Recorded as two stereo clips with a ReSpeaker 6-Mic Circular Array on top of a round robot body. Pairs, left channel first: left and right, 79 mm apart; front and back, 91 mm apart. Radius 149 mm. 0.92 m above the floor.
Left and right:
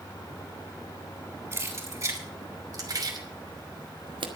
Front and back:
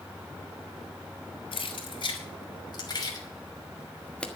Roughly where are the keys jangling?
Ahead right.